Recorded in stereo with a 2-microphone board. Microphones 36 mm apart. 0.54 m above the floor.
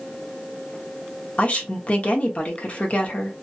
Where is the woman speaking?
40° left (ahead or behind), 1.0 m.